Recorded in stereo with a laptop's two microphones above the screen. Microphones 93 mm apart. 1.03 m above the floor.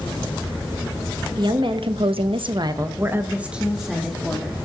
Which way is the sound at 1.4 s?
55° right (ahead or behind).